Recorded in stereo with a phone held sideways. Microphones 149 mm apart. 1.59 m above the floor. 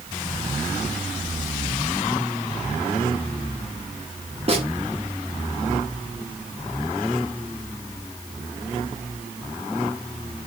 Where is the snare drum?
40° right (ahead or behind), 3.5 m.